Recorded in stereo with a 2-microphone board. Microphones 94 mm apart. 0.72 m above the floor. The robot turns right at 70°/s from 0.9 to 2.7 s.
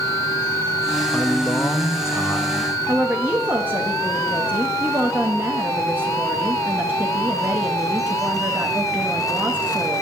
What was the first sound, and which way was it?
A man speaking, 10° left (ahead or behind).